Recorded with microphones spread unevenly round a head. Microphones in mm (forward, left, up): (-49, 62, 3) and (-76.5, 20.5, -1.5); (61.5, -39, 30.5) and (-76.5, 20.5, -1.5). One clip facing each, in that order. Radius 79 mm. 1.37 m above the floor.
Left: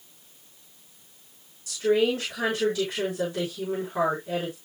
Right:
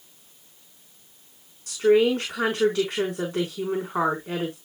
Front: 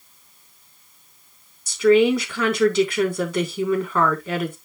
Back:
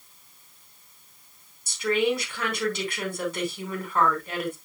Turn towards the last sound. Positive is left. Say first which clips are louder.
# right 4 dB, front 9 dB
turn(degrees=-45)